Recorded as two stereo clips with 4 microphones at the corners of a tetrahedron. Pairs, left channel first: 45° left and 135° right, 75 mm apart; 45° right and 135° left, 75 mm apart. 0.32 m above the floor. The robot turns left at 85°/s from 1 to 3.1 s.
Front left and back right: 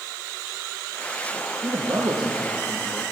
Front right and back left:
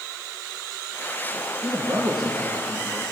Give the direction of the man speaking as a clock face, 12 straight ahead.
5 o'clock.